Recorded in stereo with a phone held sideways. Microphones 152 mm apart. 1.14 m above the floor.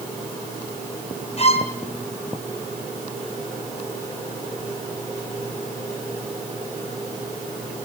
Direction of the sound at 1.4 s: 45° left (ahead or behind).